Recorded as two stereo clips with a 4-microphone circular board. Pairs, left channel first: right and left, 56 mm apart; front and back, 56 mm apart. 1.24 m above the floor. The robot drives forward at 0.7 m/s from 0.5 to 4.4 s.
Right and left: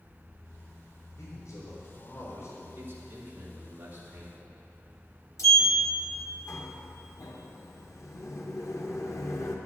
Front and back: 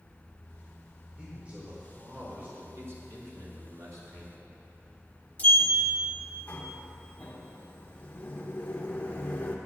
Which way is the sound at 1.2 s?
110° right.